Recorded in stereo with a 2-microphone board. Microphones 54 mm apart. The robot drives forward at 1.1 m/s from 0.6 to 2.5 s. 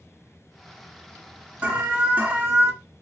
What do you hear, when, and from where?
1.6 s an alarm: 25° right (ahead or behind), 1.9 m; by 2.7 s 35° right (ahead or behind), 1.5 m